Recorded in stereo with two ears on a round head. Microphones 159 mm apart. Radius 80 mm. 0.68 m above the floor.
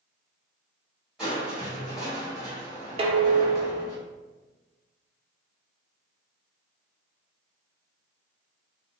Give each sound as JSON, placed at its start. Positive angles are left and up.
{"t": 1.2, "sound": "crushing", "side_deg": -5, "distance_m": 2.0}
{"t": 3.0, "sound": "dishes clattering", "side_deg": -30, "distance_m": 0.5}